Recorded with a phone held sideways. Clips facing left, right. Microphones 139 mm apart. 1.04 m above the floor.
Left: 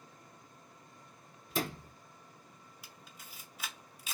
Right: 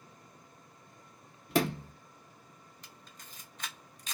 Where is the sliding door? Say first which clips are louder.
Right 7 dB; 70° right (ahead or behind), 0.7 m.